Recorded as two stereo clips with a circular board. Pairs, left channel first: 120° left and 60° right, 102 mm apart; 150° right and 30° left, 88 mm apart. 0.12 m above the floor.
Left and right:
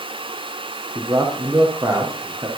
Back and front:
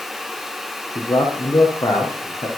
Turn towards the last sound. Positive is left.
turn(degrees=-115)